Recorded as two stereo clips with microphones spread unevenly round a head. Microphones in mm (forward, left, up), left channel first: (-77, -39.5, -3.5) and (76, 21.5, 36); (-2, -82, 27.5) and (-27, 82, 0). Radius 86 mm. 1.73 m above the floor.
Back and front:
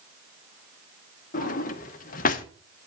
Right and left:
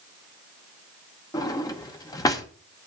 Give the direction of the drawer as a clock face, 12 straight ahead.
4 o'clock.